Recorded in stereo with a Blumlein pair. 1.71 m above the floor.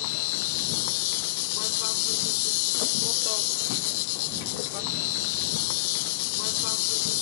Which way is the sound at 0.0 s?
45° left.